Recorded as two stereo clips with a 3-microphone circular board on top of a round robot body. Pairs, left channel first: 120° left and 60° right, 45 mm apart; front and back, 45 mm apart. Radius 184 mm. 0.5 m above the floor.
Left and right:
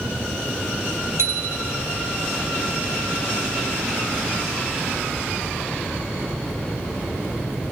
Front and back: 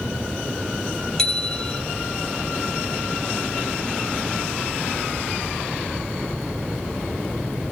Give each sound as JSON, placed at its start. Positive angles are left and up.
{"t": 1.2, "sound": "a bicycle bell", "azimuth_deg": -80, "distance_m": 3.5}